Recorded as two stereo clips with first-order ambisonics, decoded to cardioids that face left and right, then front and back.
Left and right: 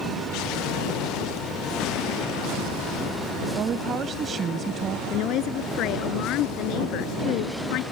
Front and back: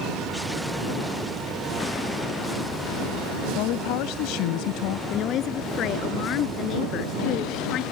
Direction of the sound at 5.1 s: 50° left.